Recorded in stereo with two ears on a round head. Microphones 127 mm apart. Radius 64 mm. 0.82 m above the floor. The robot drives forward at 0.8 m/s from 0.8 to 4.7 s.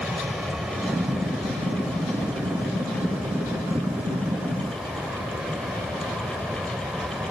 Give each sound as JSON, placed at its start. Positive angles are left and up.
{"t": 0.0, "sound": "an aircraft", "side_deg": -5}